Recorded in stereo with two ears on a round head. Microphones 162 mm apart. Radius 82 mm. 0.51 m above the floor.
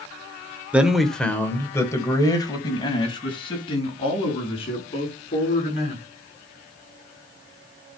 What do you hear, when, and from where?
0.7 s a man speaking: 5° right (ahead or behind), 1.4 m; by 6.0 s 35° left (ahead or behind), 6.5 m